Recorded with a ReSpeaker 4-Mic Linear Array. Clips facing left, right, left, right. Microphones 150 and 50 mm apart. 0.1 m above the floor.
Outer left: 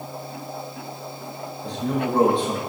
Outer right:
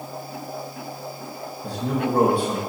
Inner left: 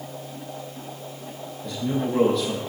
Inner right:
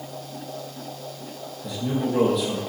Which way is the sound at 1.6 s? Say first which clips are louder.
Even, even; 10° right (ahead or behind).